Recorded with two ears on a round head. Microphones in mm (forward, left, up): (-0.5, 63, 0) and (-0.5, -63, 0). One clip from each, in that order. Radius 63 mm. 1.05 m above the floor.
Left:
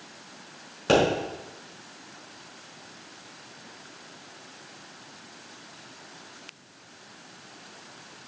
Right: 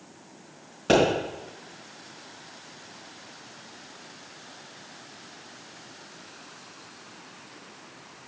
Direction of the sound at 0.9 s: 20° left (ahead or behind).